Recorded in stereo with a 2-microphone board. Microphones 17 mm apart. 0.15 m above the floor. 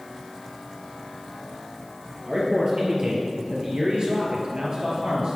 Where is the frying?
I don't hear frying.